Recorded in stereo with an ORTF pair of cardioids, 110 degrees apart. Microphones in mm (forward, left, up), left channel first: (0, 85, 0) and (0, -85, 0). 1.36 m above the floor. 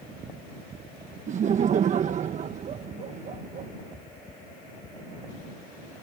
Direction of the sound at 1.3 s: 45° right.